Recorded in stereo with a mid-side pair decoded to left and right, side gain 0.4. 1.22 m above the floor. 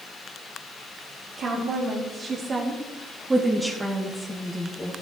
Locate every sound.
1.4 s a woman speaking: 70° right, 4 m; by 4.9 s 25° left, 3 m